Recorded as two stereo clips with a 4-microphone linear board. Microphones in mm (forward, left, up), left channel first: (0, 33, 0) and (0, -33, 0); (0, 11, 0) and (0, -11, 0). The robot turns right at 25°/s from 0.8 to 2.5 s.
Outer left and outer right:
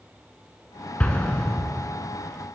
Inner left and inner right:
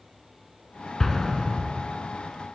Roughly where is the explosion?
Centre.